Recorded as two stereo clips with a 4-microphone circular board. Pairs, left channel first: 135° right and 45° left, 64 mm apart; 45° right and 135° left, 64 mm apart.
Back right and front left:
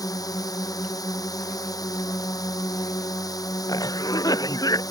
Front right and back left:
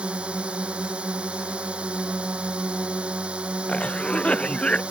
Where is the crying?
No crying in this recording.